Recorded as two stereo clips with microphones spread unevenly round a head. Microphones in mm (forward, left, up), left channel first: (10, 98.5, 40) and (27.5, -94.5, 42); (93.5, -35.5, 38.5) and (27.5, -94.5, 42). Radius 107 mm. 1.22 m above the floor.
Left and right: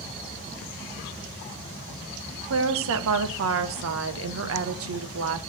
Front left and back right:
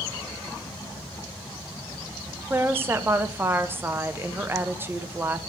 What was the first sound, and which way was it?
A woman speaking, 70° right.